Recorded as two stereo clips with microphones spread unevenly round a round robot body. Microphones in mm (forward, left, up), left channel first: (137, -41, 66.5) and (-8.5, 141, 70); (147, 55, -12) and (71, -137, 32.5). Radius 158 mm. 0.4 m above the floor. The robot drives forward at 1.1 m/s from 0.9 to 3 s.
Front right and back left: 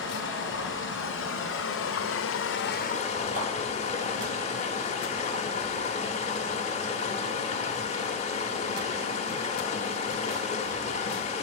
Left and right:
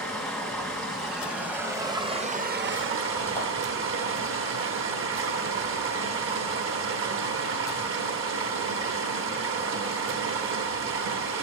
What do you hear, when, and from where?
0.0 s running water: 20° right, 2.5 m; by 11.4 s 105° right, 0.9 m
3.4 s a clap: 175° left, 7 m